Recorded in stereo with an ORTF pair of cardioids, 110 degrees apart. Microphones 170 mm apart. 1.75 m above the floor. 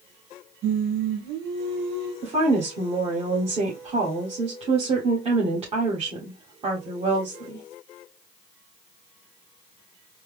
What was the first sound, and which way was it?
Singing, 70° right.